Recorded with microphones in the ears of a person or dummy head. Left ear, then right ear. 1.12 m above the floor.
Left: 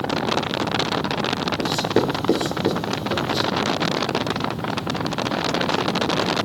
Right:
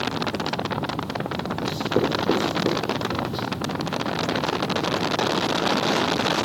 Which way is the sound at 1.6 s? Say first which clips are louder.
Left 1 dB; 15° left (ahead or behind).